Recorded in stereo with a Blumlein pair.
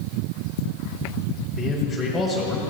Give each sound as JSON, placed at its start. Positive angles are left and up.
{"t": 1.6, "sound": "a man speaking", "azimuth_deg": 0, "distance_m": 6.5}